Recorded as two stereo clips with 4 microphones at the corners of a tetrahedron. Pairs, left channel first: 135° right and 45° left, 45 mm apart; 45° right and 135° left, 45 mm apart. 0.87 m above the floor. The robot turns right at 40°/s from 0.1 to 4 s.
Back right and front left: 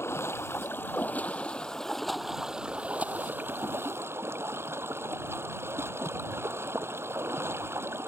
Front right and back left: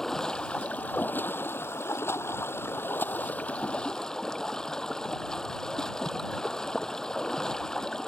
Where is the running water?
125° right; by 8.1 s 30° left.